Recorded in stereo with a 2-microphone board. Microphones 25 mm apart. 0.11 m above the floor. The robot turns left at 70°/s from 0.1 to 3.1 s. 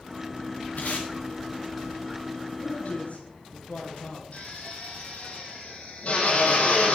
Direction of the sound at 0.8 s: 75° left (ahead or behind).